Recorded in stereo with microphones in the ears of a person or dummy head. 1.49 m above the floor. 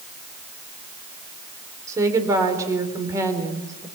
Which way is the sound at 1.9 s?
20° right (ahead or behind).